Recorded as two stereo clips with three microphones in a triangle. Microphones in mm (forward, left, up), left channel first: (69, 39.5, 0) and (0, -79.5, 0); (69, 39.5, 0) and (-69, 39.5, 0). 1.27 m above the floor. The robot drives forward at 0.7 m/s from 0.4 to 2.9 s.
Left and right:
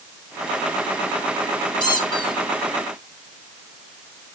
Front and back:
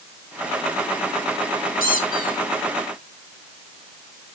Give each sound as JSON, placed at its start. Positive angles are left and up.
{"t": 1.8, "sound": "a squeak", "azimuth_deg": 0, "distance_m": 2.0}